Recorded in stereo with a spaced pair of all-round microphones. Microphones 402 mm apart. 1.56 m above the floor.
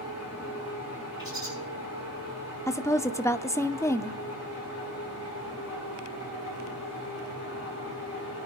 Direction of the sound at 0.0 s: 40° left (ahead or behind).